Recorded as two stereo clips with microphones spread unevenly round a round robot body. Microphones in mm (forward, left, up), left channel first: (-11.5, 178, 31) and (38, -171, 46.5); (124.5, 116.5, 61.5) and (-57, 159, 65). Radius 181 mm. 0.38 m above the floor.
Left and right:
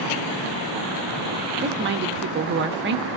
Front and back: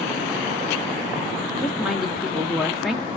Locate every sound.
1.6 s a woman speaking: 105° right, 1.0 m